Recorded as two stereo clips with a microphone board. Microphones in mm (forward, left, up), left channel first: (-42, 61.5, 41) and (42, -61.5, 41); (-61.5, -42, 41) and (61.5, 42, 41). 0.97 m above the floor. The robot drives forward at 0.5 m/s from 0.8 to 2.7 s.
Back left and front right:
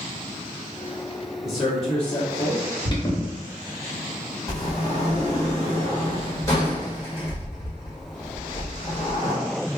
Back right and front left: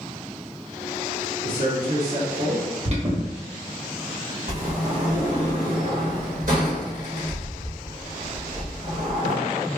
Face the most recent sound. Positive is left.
turn(degrees=55)